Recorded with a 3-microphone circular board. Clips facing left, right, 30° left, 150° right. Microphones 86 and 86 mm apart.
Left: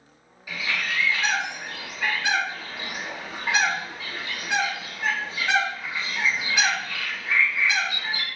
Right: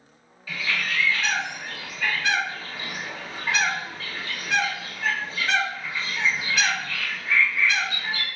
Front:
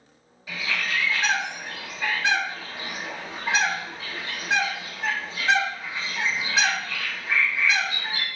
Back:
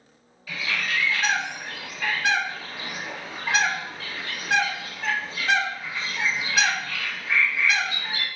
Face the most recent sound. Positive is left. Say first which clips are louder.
# even, even
turn(degrees=50)